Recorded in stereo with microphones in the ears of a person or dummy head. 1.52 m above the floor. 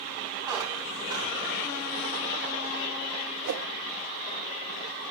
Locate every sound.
0.5 s a squeak: 20° right (ahead or behind), 3.5 m
3.5 s a whoosh: 70° right (ahead or behind), 0.9 m